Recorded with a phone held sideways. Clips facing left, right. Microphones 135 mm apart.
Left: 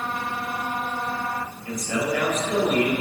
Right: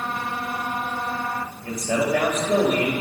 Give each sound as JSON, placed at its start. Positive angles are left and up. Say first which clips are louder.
{"t": 1.6, "sound": "a man speaking", "louder": "right 3 dB", "side_deg": -65, "distance_m": 4.0}